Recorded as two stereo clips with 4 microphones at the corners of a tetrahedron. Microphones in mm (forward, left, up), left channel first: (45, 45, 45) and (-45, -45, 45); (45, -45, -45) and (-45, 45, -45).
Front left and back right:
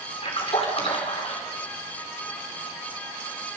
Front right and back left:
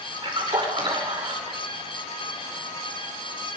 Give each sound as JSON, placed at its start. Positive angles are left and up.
{"t": 0.2, "sound": "a splash", "azimuth_deg": 85, "distance_m": 5.0}